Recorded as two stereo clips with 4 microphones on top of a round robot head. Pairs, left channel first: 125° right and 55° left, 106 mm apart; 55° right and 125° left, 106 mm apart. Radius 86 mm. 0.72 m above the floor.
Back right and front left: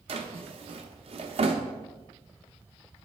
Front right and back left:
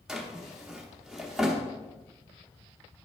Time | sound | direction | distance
0.1 | a drawer | 40° left | 0.9 m